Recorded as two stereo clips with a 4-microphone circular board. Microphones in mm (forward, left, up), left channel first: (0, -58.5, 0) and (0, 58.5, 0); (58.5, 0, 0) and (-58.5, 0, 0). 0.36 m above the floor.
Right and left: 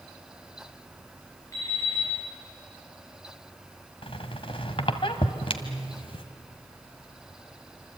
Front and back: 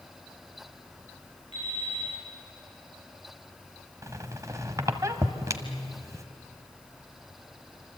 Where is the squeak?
120° right, 1.5 m.